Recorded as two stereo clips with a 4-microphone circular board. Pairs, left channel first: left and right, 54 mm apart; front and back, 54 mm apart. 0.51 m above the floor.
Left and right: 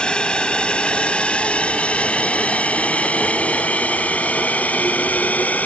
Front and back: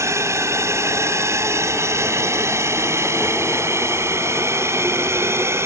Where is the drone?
160° left; by 5.7 s 145° left.